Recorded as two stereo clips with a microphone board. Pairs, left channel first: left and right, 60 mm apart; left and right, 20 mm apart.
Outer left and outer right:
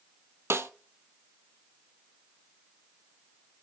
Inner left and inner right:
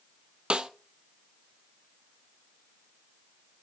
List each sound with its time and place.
0.5 s a snare drum: 45° right (ahead or behind), 0.7 m